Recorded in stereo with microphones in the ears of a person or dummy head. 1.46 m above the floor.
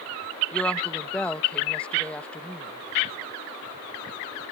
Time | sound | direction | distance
0.5 | a woman speaking | 5° left (ahead or behind) | ?